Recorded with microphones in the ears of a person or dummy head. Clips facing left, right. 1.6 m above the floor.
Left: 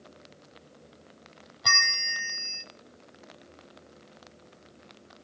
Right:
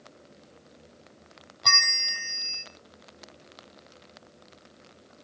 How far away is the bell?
About 1.1 m.